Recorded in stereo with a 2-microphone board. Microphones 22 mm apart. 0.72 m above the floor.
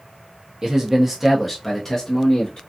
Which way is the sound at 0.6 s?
35° right (ahead or behind).